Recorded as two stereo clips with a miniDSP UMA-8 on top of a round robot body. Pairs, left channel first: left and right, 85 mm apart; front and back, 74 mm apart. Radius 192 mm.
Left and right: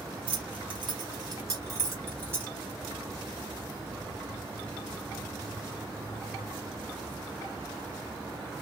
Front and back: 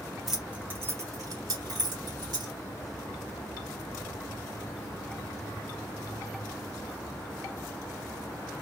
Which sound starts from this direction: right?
Keys jangling, at 0.3 s.